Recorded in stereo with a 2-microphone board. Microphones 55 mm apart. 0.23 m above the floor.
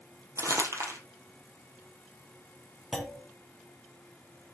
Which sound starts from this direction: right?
Crumpling, at 0.4 s.